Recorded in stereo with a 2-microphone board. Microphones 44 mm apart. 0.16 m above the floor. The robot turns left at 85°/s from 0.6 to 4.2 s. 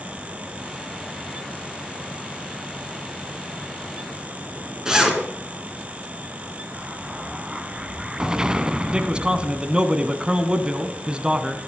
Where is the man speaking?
25° right (ahead or behind), 1.2 m.